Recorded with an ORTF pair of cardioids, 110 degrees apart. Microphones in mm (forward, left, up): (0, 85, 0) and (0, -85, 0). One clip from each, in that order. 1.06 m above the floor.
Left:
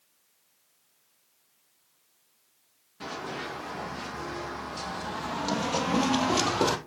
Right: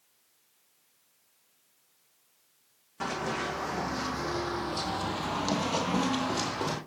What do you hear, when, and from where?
3.0 s running footsteps: 60° right, 3.5 m; by 6.8 s 65° left, 1.7 m